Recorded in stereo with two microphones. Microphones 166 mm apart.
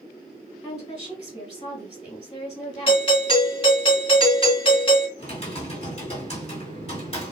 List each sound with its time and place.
0.6 s a woman speaking: 35° left (ahead or behind), 2.0 m
2.9 s a doorbell: 35° left (ahead or behind), 1.6 m
5.2 s typing on a keyboard: 40° left (ahead or behind), 1.8 m